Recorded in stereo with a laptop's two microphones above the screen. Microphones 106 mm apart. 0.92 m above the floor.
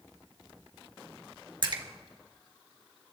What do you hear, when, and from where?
1.6 s a splash: 50° right (ahead or behind), 1.4 m